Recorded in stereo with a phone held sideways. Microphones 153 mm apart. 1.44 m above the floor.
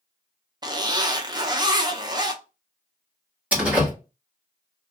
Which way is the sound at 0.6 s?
30° right (ahead or behind).